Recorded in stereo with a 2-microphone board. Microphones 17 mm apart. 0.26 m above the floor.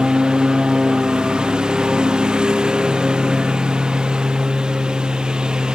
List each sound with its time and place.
0.0 s a lawn mower: 45° right (ahead or behind)